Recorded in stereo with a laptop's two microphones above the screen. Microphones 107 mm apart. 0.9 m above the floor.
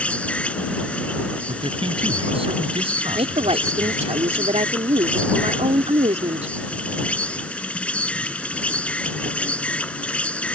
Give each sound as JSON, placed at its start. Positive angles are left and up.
{"t": 0.0, "sound": "an insect", "side_deg": 10}
{"t": 1.5, "sound": "a man speaking", "side_deg": -60}
{"t": 3.1, "sound": "a woman speaking", "side_deg": -80}